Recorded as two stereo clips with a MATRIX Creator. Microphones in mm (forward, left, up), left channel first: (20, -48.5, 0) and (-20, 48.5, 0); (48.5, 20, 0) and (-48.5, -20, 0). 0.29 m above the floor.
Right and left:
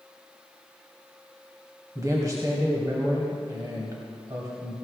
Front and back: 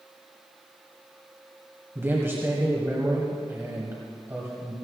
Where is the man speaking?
150° left, 2 m.